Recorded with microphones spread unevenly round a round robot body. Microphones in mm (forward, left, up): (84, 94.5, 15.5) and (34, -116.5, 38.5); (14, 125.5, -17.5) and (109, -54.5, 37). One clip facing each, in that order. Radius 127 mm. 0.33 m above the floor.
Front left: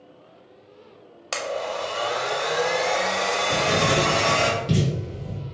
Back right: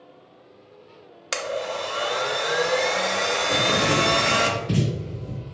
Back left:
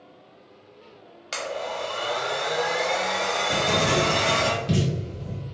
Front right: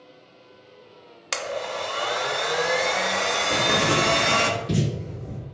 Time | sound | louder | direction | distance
1.3 | a blender | even, front right 1 dB | 30° right | 0.5 m
3.5 | writing | even, even | 100° left | 1.7 m